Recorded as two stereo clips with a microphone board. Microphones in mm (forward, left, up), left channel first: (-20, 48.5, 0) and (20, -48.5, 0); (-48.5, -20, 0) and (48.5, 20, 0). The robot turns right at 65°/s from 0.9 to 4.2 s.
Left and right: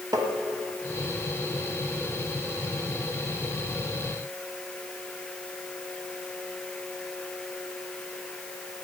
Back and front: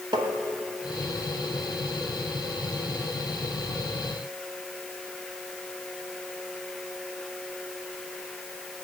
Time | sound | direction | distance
0.1 | tapping | 20° right | 1.4 m